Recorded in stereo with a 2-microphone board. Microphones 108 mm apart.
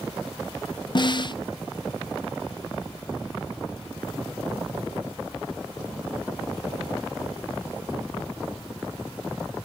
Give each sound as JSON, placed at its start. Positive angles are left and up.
{"t": 0.9, "sound": "a snare drum", "side_deg": 45}